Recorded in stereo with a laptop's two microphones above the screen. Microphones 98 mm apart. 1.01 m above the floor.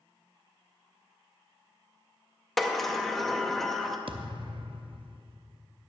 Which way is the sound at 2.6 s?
Centre (ahead or behind).